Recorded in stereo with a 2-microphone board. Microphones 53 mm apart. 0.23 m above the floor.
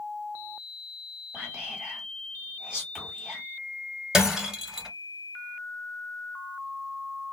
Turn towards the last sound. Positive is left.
turn(degrees=-10)  # may be behind; listen again after turning